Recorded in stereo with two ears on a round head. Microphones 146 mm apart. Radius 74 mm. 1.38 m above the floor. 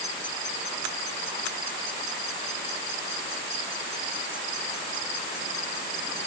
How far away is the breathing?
I don't hear breathing.